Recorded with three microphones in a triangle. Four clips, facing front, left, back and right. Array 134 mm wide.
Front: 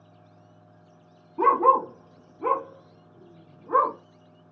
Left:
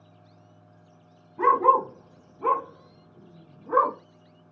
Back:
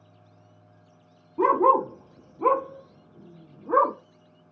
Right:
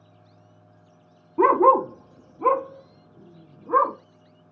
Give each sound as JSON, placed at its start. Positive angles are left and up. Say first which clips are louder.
{"t": 1.4, "sound": "a dog barking", "louder": "right 3 dB, even", "azimuth_deg": -100, "distance_m": 0.6}